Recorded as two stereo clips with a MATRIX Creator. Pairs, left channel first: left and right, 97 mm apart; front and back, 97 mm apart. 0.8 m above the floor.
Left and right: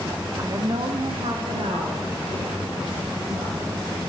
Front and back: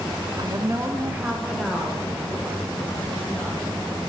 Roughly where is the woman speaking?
Behind right.